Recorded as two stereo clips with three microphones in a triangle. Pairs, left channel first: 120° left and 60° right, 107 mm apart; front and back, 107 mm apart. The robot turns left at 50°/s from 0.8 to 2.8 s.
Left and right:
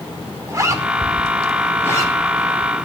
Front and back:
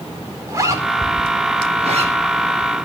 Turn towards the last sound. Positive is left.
turn(degrees=140)